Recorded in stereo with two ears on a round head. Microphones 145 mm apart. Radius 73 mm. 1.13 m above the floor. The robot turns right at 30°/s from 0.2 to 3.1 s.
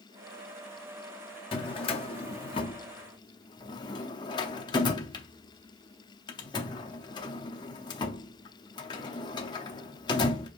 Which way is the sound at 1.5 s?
35° left (ahead or behind).